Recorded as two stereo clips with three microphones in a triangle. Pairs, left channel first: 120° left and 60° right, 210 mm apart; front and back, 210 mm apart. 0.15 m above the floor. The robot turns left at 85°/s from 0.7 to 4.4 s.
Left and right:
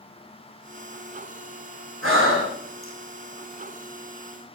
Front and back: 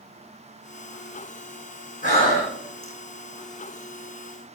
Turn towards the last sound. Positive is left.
turn(degrees=110)